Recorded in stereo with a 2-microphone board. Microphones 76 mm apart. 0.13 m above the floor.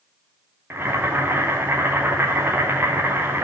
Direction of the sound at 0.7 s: 30° right (ahead or behind).